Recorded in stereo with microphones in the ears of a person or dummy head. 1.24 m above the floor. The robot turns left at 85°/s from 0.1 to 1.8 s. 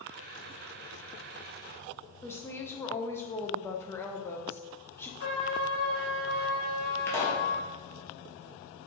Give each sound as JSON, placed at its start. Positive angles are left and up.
{"t": 2.2, "sound": "a woman speaking", "side_deg": 15, "distance_m": 0.5}
{"t": 5.2, "sound": "a trumpet", "side_deg": 50, "distance_m": 1.2}
{"t": 7.1, "sound": "a pop", "side_deg": 15, "distance_m": 0.7}